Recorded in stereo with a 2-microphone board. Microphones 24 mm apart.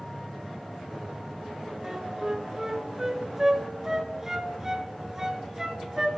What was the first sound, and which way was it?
A flute, 20° right (ahead or behind).